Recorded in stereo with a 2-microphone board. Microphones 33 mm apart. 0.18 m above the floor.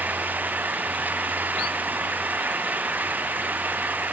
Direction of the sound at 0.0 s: 60° right (ahead or behind).